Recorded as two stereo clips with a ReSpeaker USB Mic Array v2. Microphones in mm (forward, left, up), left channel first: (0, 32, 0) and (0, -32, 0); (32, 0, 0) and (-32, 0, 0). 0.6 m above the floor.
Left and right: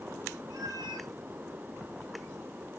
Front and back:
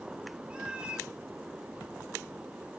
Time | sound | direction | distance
0.5 | a cat meowing | 105° right | 1.4 m